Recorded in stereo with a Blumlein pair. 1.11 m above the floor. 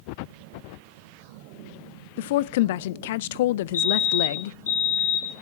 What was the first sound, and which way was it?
A woman speaking, 55° left.